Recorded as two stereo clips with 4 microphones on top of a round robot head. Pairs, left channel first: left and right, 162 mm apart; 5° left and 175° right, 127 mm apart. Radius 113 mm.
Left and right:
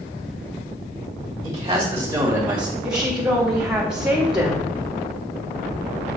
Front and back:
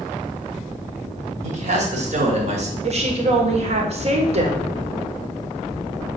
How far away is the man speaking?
About 2.5 m.